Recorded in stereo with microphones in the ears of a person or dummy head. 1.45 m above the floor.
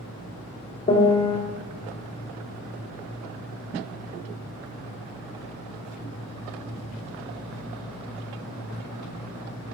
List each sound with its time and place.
0.9 s a piano: 30° left (ahead or behind), 1.7 m